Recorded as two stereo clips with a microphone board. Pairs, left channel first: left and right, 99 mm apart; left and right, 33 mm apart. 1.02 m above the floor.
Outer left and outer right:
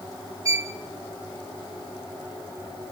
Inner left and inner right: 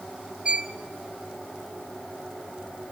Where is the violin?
30° right (ahead or behind), 1.4 m.